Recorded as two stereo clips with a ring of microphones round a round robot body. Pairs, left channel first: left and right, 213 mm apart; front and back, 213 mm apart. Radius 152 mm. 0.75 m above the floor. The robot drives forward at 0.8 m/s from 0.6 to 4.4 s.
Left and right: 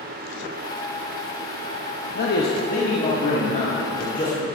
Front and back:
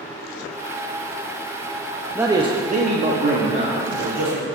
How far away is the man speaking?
About 0.9 m.